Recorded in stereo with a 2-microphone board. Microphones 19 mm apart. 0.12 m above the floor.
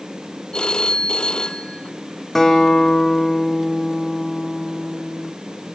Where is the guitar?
15° left (ahead or behind), 3.5 m.